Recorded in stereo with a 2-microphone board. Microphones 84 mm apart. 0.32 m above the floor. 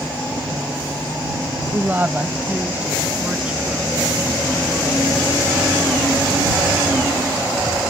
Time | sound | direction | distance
1.7 | a woman speaking | 25° right (ahead or behind) | ?